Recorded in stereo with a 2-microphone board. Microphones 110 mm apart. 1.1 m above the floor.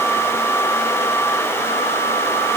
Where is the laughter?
I don't hear laughter.